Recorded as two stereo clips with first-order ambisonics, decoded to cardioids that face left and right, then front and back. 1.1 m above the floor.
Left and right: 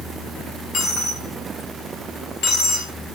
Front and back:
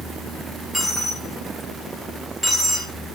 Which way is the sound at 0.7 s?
85° left.